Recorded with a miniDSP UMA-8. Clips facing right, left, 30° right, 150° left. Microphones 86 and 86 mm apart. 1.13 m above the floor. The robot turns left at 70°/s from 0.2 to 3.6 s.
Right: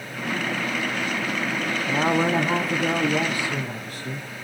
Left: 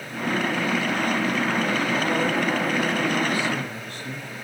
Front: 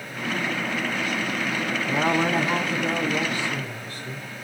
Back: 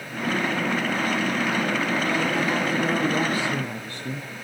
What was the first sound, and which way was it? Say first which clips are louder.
A woman speaking: right 2 dB, front 2 dB; 55° right.